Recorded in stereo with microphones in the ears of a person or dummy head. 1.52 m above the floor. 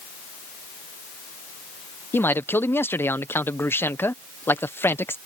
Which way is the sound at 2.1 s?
10° left (ahead or behind).